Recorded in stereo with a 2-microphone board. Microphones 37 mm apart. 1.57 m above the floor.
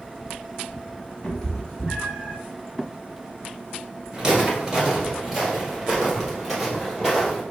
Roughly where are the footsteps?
Right.